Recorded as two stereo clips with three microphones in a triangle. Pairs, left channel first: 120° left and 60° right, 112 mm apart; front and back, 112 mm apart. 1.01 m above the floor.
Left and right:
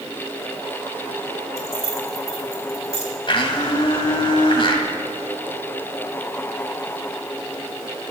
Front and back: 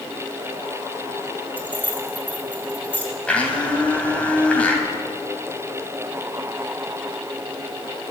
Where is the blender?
80° left, 2 m.